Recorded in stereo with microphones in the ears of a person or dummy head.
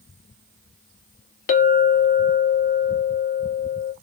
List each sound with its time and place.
1.5 s a clink: 45° left (ahead or behind), 0.8 m